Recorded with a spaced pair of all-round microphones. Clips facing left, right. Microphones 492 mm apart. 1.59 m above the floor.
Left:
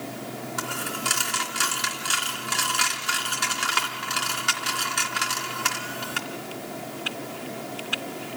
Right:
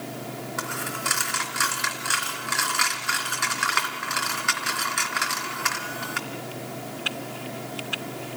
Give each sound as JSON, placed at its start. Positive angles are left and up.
{"t": 0.6, "sound": "a dropped coin", "side_deg": 50, "distance_m": 3.0}